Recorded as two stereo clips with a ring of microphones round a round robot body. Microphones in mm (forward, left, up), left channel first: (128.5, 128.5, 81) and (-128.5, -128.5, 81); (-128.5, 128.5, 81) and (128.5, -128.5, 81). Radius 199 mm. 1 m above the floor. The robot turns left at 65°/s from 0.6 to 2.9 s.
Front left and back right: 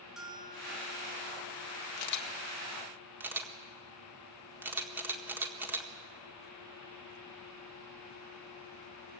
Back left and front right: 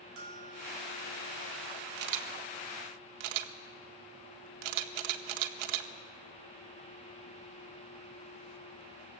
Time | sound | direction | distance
0.2 | a bell | 45° right | 5 m
2.0 | a camera shutter | 10° left | 1.6 m